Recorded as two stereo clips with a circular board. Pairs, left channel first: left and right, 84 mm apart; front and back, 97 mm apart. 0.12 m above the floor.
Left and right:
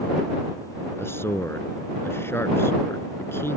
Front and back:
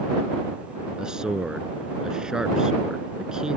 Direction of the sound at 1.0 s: 105° left.